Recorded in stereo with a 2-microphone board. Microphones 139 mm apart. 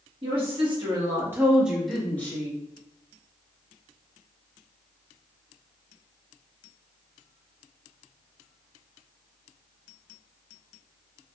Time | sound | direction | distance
0.2 | a woman speaking | 45° right (ahead or behind) | 1.3 m